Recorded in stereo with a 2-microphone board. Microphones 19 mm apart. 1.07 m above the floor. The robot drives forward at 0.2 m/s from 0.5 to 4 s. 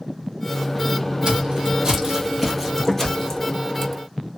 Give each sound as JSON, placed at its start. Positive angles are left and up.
{"t": 1.2, "sound": "footsteps", "side_deg": -45, "distance_m": 1.5}